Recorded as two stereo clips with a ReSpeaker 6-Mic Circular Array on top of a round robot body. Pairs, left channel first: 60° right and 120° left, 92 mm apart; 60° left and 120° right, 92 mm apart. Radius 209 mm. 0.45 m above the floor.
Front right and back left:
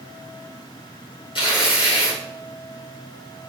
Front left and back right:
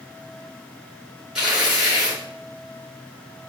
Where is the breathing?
No breathing in this recording.